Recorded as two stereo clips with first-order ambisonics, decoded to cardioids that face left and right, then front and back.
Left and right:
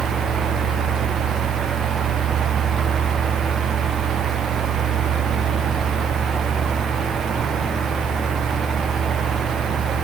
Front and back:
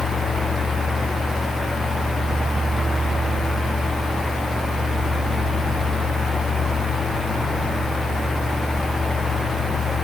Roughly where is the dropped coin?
No dropped coin in this recording.